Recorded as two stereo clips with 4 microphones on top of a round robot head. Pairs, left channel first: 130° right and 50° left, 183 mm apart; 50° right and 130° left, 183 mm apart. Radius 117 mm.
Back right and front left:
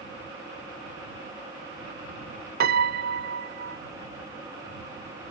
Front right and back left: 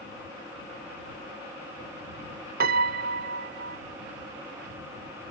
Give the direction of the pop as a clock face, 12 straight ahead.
No pop in this recording.